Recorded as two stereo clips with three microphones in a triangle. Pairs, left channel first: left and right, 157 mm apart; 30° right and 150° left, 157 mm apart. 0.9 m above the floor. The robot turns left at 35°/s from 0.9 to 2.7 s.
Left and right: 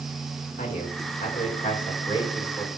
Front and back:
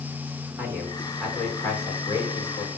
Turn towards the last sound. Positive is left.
turn(degrees=10)